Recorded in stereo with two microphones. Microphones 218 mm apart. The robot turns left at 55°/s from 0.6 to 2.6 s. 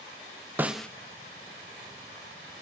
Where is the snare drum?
10° right (ahead or behind), 0.7 m; by 0.9 s 5° left (ahead or behind), 0.7 m.